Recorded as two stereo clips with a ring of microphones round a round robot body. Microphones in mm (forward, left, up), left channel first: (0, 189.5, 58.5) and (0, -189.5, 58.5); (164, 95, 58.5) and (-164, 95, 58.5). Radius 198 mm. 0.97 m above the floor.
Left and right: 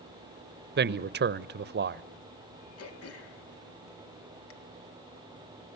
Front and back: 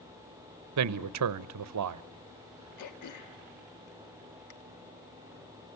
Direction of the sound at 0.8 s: 150° right.